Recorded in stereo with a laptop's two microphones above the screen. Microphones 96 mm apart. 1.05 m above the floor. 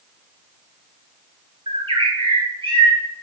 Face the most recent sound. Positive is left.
turn(degrees=-55)  # may be behind; listen again after turning